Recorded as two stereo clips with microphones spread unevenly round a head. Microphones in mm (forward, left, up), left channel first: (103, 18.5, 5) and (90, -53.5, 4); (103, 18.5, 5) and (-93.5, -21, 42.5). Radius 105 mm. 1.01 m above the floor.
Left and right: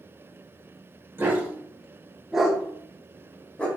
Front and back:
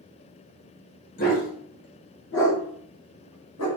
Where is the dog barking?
40° right, 1.6 m; by 3.7 s 10° left, 1.8 m.